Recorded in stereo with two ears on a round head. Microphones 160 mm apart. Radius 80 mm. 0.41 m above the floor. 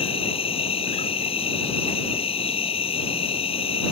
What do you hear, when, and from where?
0.0 s an insect: 35° left (ahead or behind)